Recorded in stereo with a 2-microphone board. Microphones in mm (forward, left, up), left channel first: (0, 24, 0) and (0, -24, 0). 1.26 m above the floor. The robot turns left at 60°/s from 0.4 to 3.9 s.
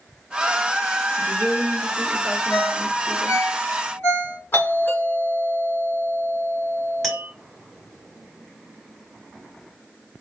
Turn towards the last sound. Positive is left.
turn(degrees=5)  # may be behind; listen again after turning